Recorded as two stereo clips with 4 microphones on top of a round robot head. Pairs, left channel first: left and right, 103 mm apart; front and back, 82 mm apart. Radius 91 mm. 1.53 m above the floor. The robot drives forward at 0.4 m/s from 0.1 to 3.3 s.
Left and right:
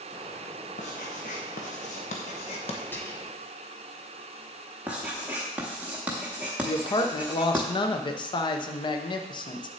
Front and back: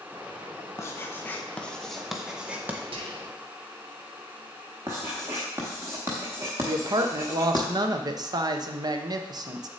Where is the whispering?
165° left, 1.8 m.